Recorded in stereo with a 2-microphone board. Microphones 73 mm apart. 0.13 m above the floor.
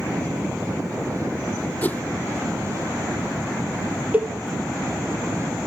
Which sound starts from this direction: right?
A cowbell, at 4.1 s.